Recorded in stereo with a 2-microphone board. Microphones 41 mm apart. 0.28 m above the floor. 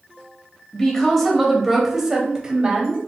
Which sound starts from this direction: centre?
A woman speaking, at 0.7 s.